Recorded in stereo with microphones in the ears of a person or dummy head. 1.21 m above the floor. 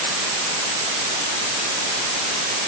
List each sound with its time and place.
Only background noise.